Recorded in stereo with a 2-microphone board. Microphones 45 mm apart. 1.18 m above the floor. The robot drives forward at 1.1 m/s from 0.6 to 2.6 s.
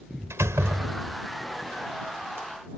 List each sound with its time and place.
0.3 s a door slam: 90° right; by 1.2 s 80° right